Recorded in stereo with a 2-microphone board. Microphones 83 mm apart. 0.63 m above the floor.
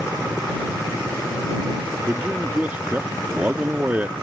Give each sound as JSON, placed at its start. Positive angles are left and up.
{"t": 2.1, "sound": "a man speaking", "side_deg": -20}